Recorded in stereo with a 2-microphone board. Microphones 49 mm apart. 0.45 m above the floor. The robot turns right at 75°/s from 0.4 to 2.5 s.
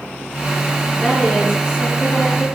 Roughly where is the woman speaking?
Ahead.